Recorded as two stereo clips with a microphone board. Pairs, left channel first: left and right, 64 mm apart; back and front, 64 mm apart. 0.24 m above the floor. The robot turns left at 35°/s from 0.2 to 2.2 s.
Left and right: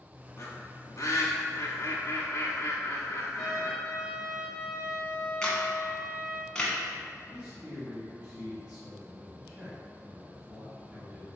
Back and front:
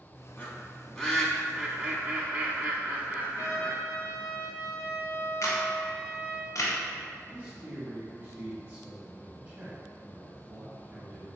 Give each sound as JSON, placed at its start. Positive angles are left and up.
{"t": 0.4, "sound": "a bird", "azimuth_deg": 125, "distance_m": 0.7}
{"t": 3.4, "sound": "a trumpet", "azimuth_deg": 170, "distance_m": 0.9}
{"t": 5.4, "sound": "a camera shutter", "azimuth_deg": 165, "distance_m": 0.9}
{"t": 7.3, "sound": "a man speaking", "azimuth_deg": -35, "distance_m": 1.0}